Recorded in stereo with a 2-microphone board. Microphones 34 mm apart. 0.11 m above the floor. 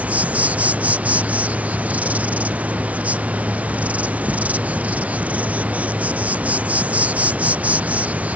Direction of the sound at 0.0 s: 45° right (ahead or behind).